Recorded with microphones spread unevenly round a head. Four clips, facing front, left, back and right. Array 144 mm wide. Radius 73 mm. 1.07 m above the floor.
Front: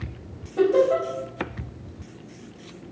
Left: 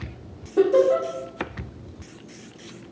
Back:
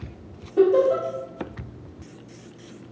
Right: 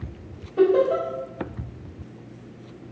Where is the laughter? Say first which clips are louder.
Left 1 dB, back 1 dB; 105° left, 2 m.